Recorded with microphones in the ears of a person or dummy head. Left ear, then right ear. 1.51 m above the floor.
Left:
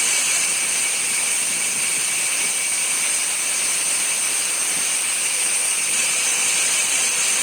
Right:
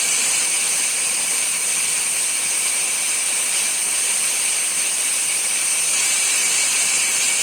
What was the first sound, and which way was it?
Only background noise.